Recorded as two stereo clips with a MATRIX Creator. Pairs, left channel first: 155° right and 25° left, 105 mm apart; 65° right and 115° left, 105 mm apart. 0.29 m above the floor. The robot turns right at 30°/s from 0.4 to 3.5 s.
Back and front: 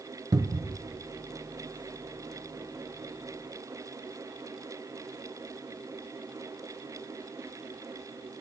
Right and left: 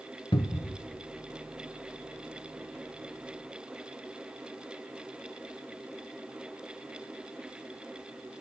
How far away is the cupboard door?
About 1.4 m.